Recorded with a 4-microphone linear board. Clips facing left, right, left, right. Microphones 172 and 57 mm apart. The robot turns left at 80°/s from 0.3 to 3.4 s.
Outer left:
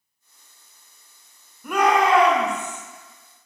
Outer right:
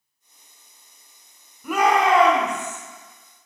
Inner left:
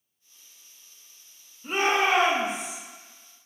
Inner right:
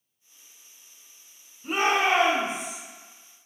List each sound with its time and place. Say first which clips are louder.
1.6 s a shout: even, even; 5° left, 1.3 m; by 2.8 s 90° right, 1.3 m